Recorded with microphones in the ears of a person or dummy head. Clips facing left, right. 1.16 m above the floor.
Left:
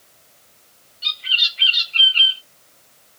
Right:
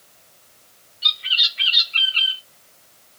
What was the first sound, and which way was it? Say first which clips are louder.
A bird: even; 20° right (ahead or behind).